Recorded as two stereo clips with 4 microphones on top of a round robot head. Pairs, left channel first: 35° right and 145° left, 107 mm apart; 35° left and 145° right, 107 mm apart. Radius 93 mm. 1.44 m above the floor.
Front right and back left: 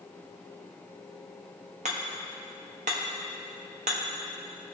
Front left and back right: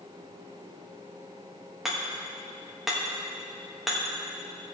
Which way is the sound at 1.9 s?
130° left.